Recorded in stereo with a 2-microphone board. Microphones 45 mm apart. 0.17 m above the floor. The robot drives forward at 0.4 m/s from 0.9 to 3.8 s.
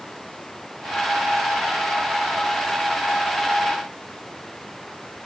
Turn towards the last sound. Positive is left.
turn(degrees=5)  # may be behind; listen again after turning